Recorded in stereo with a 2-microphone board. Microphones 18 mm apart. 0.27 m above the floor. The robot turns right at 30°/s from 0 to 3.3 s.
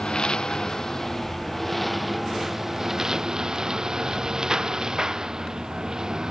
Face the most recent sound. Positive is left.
turn(degrees=-135)